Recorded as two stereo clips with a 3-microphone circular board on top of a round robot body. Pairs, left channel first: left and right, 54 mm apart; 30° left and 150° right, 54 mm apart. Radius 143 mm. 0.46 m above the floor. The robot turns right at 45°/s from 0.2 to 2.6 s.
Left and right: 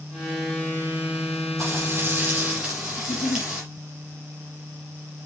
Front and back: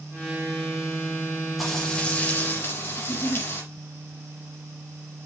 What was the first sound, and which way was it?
Frying, 60° right.